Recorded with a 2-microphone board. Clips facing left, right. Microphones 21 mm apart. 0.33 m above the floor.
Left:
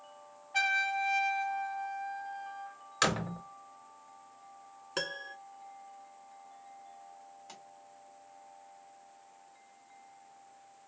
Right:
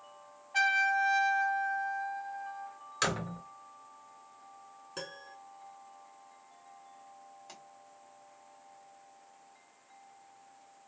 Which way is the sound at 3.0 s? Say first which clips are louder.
Left 2 dB; 20° left (ahead or behind).